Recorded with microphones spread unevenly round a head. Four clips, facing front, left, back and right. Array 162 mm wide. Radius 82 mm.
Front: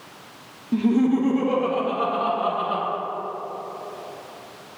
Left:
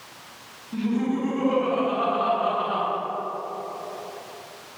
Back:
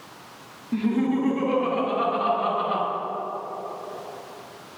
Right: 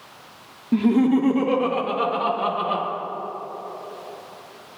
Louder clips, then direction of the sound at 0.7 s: Right 7 dB, front 4 dB; 75° right.